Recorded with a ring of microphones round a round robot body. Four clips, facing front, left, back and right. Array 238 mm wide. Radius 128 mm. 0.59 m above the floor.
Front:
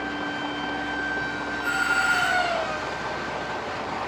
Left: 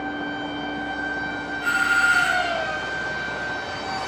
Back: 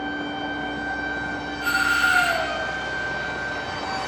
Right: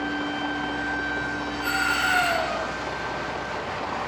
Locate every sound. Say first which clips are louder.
1.6 s a doorbell: left 5 dB, back 3 dB; 145° right, 4 m